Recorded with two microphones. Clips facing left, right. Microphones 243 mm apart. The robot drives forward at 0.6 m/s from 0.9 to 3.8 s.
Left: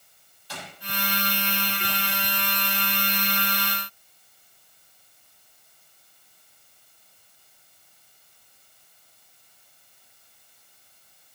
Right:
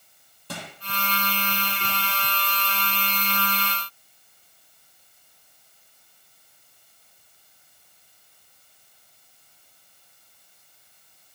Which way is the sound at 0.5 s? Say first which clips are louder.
Right 4 dB; 60° right (ahead or behind).